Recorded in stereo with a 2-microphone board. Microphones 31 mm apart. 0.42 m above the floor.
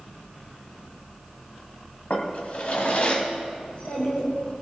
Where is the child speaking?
75° left (ahead or behind), 3.5 m.